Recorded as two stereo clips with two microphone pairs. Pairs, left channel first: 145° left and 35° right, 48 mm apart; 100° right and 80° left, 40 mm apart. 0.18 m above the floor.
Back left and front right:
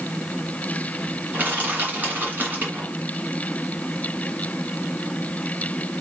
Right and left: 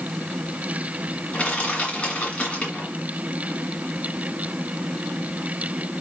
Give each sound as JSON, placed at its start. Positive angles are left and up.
{"t": 1.3, "sound": "crushing", "azimuth_deg": -60, "distance_m": 2.0}